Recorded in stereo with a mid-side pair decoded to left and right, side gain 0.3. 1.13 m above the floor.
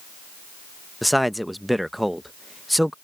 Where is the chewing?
No chewing in this recording.